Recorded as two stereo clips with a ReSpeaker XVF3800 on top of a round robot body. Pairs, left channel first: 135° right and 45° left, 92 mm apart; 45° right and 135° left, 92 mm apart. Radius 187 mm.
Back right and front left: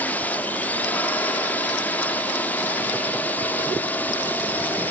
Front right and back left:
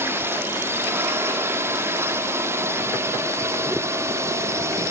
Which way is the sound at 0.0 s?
170° left.